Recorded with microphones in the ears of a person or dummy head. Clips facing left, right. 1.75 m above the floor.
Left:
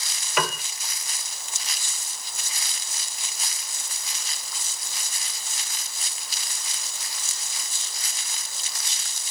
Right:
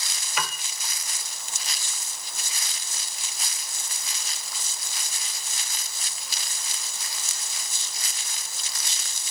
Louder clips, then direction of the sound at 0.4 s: Left 7 dB; 55° left (ahead or behind).